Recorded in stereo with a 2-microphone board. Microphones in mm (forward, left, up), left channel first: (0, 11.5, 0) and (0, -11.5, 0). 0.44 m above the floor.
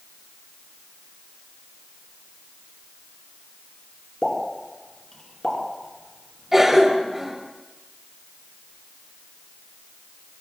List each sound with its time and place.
4.2 s a pop: 35° left (ahead or behind), 4.5 m
6.5 s a cough: 10° right (ahead or behind), 2 m